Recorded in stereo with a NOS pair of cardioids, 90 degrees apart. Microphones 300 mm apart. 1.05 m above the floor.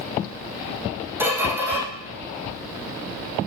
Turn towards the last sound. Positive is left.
turn(degrees=-5)